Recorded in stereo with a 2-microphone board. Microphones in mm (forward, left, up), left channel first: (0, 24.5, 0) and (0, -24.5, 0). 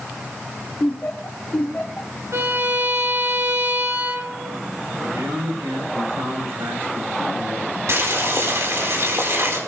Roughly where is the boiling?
Right.